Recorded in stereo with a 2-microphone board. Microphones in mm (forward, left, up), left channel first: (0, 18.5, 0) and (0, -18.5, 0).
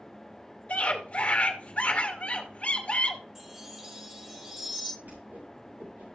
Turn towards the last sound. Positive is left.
turn(degrees=-60)  # may be behind; listen again after turning